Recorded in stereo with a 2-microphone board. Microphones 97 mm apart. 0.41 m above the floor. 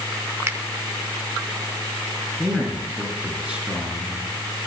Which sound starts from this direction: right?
A finger snap, at 0.5 s.